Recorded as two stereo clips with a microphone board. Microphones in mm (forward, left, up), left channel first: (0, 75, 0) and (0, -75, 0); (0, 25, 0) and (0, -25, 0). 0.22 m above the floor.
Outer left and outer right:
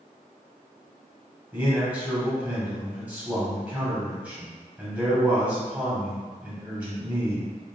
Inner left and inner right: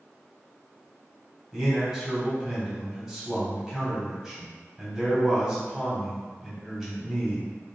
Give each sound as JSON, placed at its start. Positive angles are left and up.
{"t": 1.5, "sound": "a man speaking", "side_deg": -10, "distance_m": 0.9}